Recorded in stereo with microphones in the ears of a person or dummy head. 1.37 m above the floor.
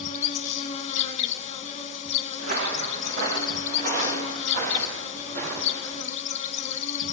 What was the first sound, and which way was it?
An insect, 40° left (ahead or behind).